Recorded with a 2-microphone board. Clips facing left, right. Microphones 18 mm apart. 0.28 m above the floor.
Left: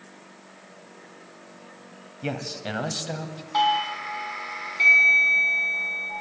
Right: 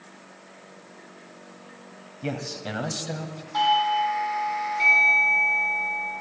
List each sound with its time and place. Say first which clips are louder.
2.2 s a man speaking: left 1 dB; 15° left (ahead or behind), 1.7 m
3.5 s a doorbell: right 2 dB; 25° left (ahead or behind), 4 m